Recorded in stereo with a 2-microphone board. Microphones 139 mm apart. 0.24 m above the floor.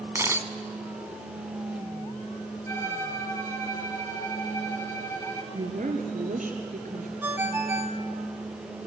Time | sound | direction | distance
0.1 | a camera shutter | 20° right (ahead or behind) | 1.0 m
2.7 | a violin | 20° left (ahead or behind) | 2.5 m
5.5 | a woman speaking | 75° right (ahead or behind) | 4 m
7.2 | a ringtone | 15° right (ahead or behind) | 1.4 m